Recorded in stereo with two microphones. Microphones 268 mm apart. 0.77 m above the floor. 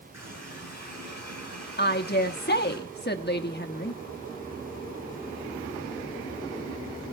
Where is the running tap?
70° right (ahead or behind), 7 m.